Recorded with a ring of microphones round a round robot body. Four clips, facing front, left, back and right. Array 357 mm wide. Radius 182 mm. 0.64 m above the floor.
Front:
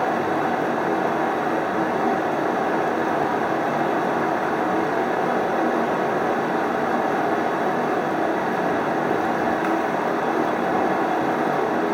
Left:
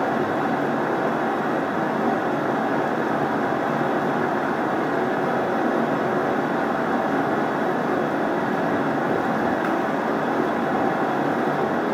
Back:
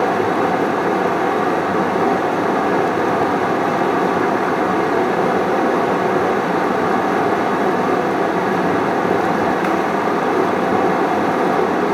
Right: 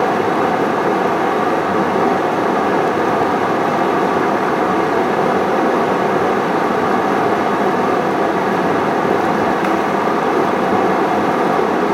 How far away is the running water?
About 0.8 m.